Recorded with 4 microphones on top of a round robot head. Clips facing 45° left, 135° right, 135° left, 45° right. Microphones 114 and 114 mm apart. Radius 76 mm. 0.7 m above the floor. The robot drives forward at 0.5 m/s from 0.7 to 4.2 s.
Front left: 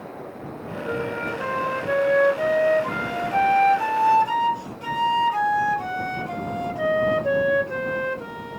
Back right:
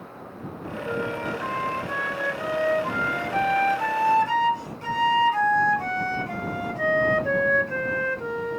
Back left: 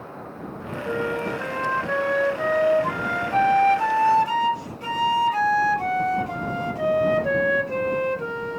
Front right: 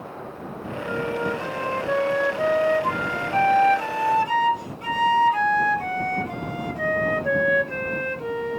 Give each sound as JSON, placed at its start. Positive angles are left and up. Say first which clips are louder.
{"t": 0.8, "sound": "a flute", "louder": "front left 1 dB, even", "azimuth_deg": 25, "distance_m": 1.7}